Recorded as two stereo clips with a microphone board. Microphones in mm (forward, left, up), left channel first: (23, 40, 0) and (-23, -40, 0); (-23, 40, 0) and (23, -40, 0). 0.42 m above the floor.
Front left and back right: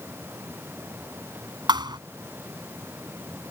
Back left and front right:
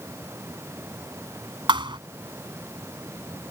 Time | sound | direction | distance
1.7 | a thud | 85° right | ?